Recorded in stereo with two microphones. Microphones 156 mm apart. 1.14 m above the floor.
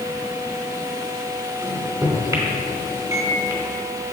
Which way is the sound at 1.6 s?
25° right (ahead or behind).